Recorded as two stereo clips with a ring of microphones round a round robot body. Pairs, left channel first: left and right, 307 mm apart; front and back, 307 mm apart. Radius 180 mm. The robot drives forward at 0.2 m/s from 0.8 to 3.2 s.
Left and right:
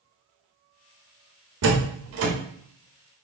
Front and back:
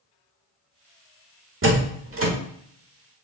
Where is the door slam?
130° right, 1.4 m; by 2.3 s 135° right, 1.5 m.